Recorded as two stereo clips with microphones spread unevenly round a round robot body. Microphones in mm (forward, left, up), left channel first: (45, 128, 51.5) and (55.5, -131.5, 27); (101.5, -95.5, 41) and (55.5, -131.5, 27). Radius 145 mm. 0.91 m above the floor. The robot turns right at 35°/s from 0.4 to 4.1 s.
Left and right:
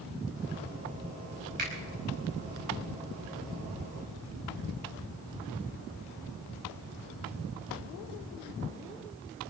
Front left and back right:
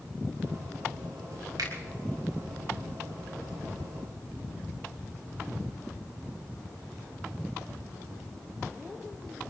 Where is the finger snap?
150° right, 5.5 m; by 1.7 s 145° right, 5.5 m.